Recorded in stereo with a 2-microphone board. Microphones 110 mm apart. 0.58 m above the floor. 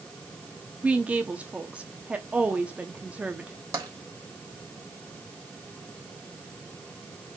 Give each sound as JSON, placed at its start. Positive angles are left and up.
{"t": 0.8, "sound": "a woman speaking", "side_deg": -10, "distance_m": 0.9}
{"t": 3.7, "sound": "tapping", "side_deg": -30, "distance_m": 3.0}